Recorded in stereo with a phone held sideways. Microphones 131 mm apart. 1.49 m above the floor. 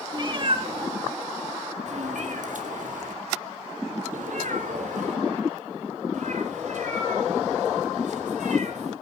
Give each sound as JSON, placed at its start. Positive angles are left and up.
{"t": 0.1, "sound": "a cat meowing", "side_deg": -35, "distance_m": 1.6}